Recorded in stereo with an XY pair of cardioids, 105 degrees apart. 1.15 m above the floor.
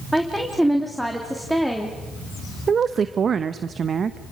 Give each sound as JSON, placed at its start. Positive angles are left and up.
{"t": 0.1, "sound": "a woman speaking", "azimuth_deg": -5, "distance_m": 3.0}
{"t": 2.7, "sound": "a woman speaking", "azimuth_deg": -45, "distance_m": 0.9}